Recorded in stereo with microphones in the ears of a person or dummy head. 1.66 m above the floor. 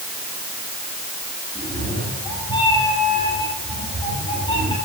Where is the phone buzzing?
No phone buzzing in this recording.